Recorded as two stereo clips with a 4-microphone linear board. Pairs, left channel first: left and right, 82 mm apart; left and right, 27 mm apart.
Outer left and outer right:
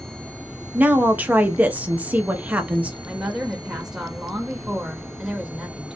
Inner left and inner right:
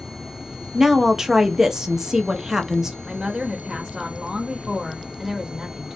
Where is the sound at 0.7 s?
20° right (ahead or behind), 0.7 m.